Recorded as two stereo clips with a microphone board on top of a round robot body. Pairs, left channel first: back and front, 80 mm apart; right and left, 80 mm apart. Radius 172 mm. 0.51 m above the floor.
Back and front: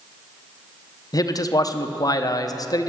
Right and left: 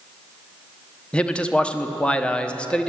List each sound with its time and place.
1.1 s a man speaking: 165° right, 1.2 m